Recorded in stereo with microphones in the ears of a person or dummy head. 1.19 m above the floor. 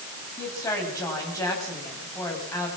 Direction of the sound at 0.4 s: 15° left (ahead or behind).